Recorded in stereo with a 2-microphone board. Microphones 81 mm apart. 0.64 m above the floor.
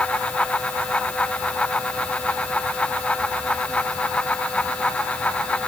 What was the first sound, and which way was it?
Only background noise.